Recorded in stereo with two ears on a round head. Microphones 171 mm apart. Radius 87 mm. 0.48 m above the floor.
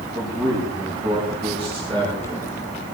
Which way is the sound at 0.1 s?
15° right (ahead or behind).